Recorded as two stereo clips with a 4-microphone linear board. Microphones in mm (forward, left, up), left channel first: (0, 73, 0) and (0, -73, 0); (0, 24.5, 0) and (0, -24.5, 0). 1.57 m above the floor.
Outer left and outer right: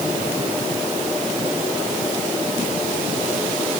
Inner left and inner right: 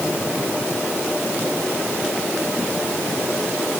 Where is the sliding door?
No sliding door in this recording.